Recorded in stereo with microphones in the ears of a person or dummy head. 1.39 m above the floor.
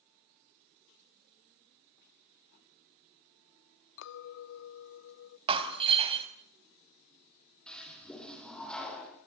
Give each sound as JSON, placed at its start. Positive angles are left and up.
{"t": 4.0, "sound": "a clink", "side_deg": 65, "distance_m": 1.0}
{"t": 5.5, "sound": "breaking glass", "side_deg": -30, "distance_m": 2.5}
{"t": 7.7, "sound": "a toilet flushing", "side_deg": 5, "distance_m": 9.5}